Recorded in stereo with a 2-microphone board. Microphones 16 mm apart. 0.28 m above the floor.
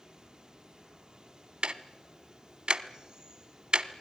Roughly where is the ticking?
Right.